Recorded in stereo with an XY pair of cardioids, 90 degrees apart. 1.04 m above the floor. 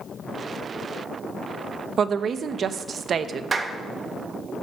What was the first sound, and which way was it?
A woman speaking, 60° right.